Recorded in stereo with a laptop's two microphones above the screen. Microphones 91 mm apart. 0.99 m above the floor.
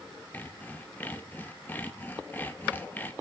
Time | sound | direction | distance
0.3 | sawing | 20° left (ahead or behind) | 0.6 m